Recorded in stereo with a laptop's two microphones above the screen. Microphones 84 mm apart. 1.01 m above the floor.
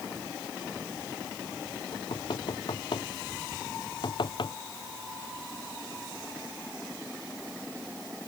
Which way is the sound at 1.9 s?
65° left (ahead or behind).